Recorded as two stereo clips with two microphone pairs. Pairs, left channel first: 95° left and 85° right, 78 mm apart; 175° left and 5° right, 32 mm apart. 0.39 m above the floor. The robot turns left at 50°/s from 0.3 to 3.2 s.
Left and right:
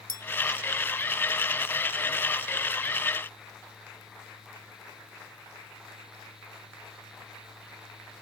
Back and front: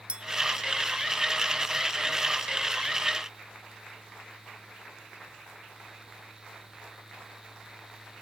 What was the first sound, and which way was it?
A clink, 55° right.